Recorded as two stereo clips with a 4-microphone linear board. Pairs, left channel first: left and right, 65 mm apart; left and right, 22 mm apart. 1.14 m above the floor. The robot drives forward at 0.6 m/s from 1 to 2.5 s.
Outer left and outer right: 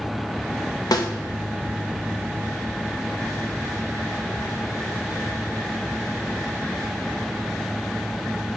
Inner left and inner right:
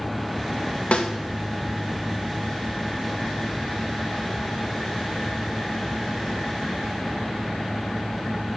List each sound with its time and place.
0.9 s a snare drum: 75° left (ahead or behind), 0.7 m; by 1.1 s 70° left (ahead or behind), 0.8 m